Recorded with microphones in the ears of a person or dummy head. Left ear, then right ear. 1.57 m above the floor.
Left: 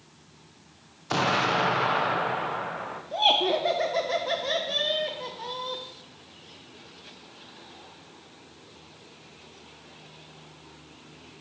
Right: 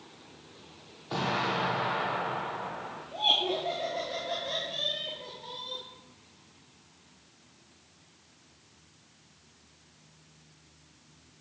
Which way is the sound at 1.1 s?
70° left (ahead or behind).